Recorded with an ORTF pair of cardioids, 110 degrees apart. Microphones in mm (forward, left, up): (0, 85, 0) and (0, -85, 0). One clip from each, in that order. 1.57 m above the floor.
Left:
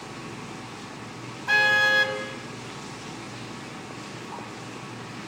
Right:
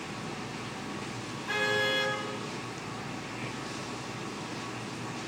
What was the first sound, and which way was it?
A car horn, 60° left.